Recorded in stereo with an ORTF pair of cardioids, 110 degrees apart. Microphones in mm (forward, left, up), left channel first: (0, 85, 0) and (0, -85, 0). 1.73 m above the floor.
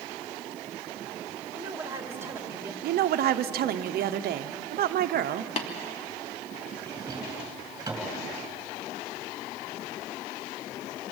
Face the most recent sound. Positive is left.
turn(degrees=-20)